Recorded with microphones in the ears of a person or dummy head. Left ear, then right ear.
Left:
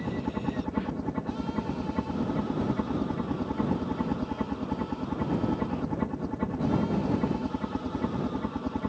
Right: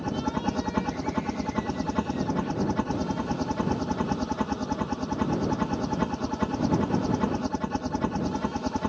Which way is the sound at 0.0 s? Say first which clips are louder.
Right 4 dB; 40° right (ahead or behind).